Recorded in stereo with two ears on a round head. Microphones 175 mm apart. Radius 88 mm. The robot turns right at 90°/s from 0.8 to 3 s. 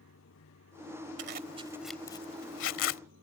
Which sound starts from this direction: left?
Running water, at 0.0 s.